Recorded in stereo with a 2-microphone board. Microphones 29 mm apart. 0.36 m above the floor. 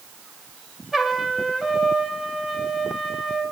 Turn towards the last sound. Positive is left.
turn(degrees=-10)  # may be behind; listen again after turning